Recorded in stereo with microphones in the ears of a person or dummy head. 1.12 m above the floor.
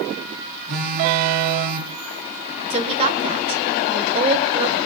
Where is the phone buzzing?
55° right (ahead or behind), 5.5 m.